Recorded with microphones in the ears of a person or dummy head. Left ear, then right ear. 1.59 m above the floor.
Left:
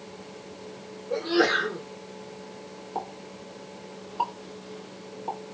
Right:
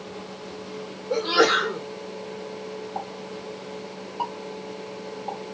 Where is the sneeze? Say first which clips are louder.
Right 4 dB; 35° right (ahead or behind), 1.2 m.